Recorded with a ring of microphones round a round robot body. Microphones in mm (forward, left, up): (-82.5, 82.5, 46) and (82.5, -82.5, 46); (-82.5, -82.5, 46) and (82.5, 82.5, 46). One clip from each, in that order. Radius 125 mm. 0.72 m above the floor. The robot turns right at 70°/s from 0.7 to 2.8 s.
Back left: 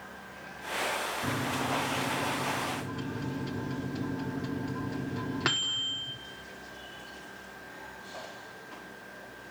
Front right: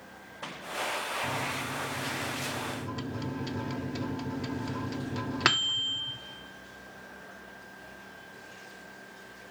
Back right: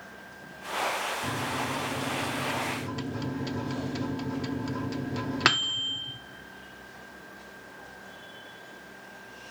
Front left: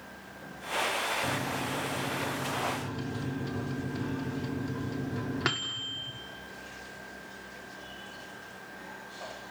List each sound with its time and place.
1.2 s a microwave: 160° left, 0.9 m; by 6.2 s 90° right, 0.9 m